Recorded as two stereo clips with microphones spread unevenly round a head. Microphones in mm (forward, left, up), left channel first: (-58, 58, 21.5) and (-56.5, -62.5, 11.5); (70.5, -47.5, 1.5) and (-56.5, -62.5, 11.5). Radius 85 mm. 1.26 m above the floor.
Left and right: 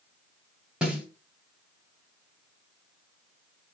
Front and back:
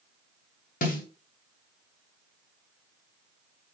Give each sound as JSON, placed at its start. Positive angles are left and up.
{"t": 0.8, "sound": "a snare drum", "azimuth_deg": -5, "distance_m": 3.0}